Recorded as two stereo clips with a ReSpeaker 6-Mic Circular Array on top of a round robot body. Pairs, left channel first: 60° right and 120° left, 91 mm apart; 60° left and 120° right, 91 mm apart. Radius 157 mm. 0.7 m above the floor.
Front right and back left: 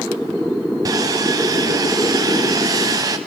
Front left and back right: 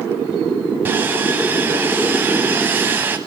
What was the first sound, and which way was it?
Sawing, 170° left.